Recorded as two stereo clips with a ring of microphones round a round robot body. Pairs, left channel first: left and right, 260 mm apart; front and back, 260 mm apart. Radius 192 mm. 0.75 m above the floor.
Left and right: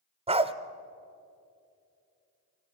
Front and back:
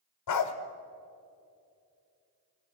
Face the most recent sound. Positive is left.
turn(degrees=-25)